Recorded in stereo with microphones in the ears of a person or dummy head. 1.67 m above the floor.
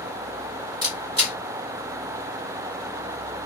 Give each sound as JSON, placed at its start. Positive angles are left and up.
{"t": 0.8, "sound": "a camera shutter", "side_deg": -25, "distance_m": 2.0}